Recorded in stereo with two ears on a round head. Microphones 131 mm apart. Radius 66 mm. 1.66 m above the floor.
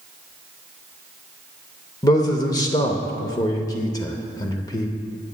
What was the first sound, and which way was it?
A man speaking, 25° left (ahead or behind).